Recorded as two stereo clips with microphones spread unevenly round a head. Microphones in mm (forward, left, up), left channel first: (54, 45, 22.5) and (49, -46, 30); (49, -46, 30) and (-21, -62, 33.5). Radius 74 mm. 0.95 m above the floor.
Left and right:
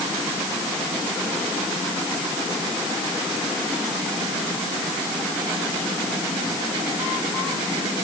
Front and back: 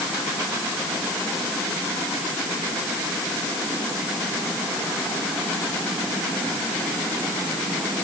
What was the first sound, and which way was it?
Only background noise.